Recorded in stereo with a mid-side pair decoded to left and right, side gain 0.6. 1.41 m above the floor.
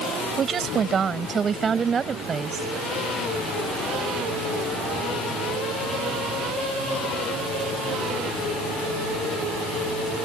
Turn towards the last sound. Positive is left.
turn(degrees=-30)